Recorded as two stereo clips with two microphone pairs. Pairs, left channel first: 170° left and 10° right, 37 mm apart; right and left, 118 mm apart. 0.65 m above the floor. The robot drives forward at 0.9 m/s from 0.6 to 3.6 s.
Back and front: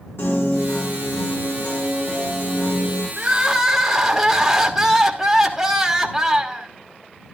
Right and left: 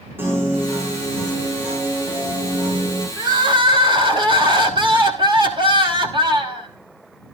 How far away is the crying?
About 1.4 m.